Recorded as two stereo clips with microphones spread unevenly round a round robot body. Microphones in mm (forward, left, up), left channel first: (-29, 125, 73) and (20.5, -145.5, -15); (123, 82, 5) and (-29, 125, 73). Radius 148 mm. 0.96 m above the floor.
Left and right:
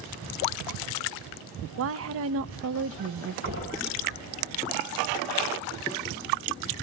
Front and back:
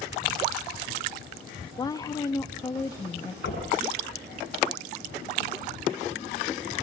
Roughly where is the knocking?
Ahead right.